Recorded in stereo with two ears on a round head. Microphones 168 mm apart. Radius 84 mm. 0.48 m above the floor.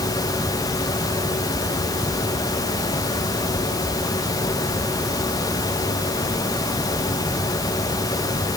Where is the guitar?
I don't hear a guitar.